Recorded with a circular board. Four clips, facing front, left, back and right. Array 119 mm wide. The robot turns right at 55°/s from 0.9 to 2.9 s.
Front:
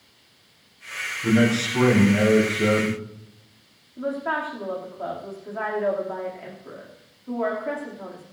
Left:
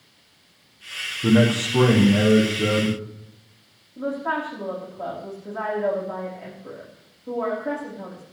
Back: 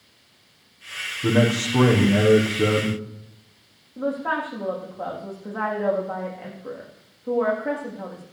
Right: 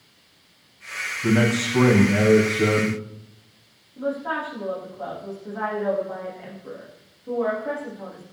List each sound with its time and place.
1.2 s a man speaking: 120° left, 6.5 m; by 3.0 s 145° right, 6.5 m
4.0 s a woman speaking: straight behind, 8.5 m